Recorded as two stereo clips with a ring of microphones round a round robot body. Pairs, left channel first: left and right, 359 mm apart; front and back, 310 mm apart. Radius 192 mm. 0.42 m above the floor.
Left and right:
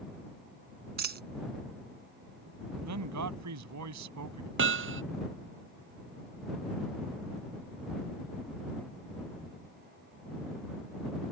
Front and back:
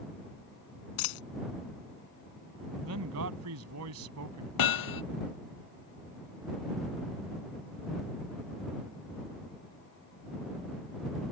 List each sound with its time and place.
1.0 s a dropped coin: 25° right
2.8 s a man speaking: 135° right
4.6 s hammering: 30° right